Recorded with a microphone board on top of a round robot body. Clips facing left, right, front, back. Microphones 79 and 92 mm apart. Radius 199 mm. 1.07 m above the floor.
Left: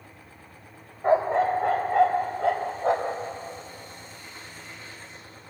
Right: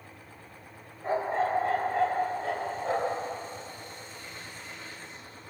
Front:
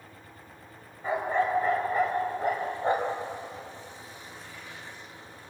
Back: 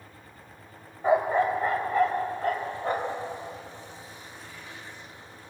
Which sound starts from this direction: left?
A dog barking, at 1.0 s.